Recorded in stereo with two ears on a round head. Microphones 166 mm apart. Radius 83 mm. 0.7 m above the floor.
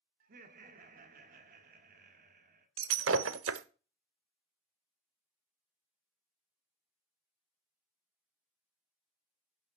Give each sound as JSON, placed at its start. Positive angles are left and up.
{"t": 0.2, "sound": "laughter", "side_deg": -50, "distance_m": 1.5}
{"t": 2.8, "sound": "breaking glass", "side_deg": -75, "distance_m": 1.0}